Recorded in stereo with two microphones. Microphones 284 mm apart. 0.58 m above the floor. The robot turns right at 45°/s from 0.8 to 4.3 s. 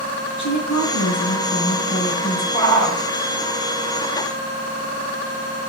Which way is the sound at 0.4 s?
85° left.